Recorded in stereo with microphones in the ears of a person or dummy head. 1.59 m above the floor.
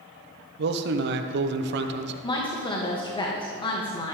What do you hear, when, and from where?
0.6 s a man speaking: 60° right (ahead or behind), 1.0 m
2.2 s a woman speaking: 20° left (ahead or behind), 2 m